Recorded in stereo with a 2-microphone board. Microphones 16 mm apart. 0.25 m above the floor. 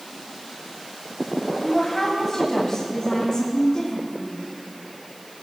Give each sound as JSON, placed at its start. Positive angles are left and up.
{"t": 1.6, "sound": "a woman speaking", "side_deg": 15, "distance_m": 1.0}